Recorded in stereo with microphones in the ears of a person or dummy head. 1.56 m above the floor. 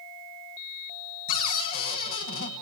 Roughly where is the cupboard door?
Left.